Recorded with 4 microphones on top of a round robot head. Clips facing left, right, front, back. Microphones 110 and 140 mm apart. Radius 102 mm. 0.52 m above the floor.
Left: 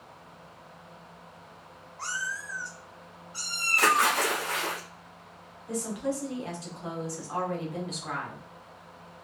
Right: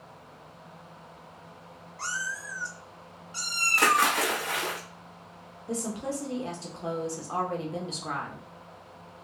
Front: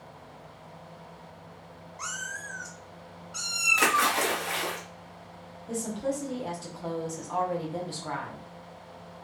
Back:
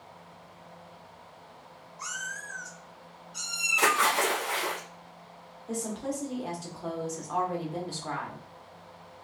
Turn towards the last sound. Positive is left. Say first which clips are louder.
# left 1 dB, front 2 dB
turn(degrees=-90)